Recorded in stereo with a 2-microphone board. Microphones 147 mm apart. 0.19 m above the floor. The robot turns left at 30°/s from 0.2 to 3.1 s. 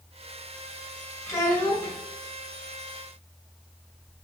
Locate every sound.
1.3 s a child speaking: 15° left (ahead or behind), 1.6 m; by 1.9 s 30° left (ahead or behind), 1.6 m